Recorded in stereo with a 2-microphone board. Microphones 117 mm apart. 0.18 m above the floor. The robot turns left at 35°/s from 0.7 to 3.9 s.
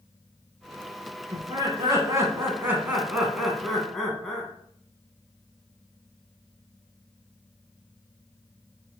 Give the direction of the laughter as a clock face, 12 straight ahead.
3 o'clock.